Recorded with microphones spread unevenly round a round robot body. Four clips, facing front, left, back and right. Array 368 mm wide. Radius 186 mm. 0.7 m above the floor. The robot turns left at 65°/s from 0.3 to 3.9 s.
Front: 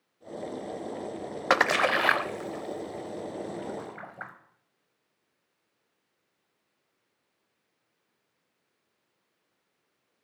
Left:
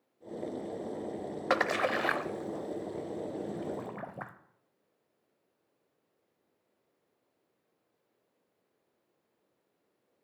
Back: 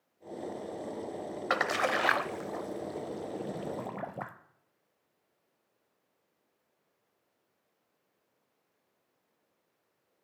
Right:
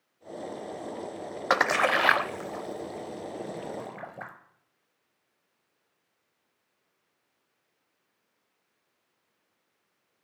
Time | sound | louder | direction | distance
1.5 | a splash | right 5 dB, front 6 dB | 40° right | 0.6 m